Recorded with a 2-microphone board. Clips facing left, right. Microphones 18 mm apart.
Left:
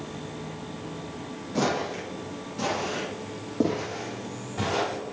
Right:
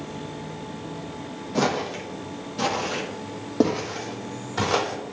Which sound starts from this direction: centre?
Footsteps, at 1.6 s.